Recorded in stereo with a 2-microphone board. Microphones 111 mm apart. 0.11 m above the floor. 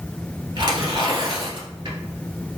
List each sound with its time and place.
0.6 s tearing paper: 45° right (ahead or behind), 1.7 m